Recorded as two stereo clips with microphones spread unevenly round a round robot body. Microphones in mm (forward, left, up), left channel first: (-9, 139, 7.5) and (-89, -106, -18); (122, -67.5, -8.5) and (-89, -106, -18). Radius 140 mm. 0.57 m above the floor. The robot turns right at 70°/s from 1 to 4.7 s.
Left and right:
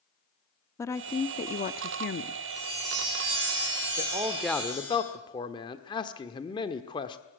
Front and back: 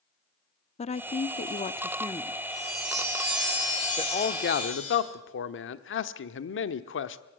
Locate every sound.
0.8 s a woman speaking: 10° right, 0.7 m; by 2.4 s 90° left, 0.7 m
2.5 s a chime: 145° right, 9.5 m; by 5.0 s 10° left, 9.5 m
4.0 s a man speaking: 55° right, 1.2 m; by 7.2 s 5° right, 1.2 m